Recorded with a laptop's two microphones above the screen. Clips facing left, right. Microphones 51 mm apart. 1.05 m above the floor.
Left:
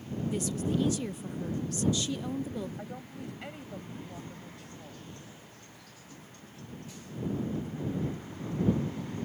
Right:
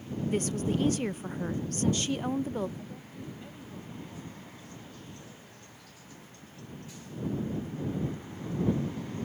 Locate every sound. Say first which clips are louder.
0.3 s a woman speaking: right 2 dB; 50° right (ahead or behind)
2.8 s a woman speaking: left 2 dB; 80° left